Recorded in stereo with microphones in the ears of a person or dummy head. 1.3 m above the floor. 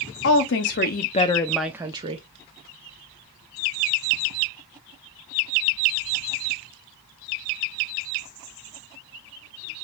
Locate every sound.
0.2 s a woman speaking: 65° left (ahead or behind), 0.9 m; by 2.2 s 35° right (ahead or behind), 0.7 m